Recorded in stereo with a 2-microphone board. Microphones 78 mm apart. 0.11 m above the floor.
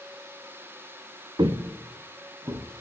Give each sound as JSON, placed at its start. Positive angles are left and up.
{"t": 1.4, "sound": "footsteps", "side_deg": -70, "distance_m": 0.8}